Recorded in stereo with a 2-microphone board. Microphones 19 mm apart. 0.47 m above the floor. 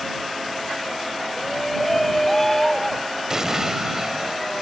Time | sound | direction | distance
1.4 | a shout | 15° left (ahead or behind) | ?
3.3 | an explosion | 25° right (ahead or behind) | ?